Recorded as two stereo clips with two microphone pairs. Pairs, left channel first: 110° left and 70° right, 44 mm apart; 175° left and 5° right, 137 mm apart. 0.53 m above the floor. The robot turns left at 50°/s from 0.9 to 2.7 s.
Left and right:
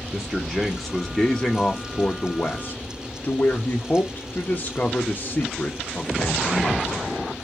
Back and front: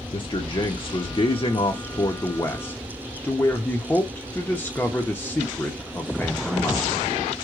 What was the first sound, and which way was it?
A man speaking, 160° right.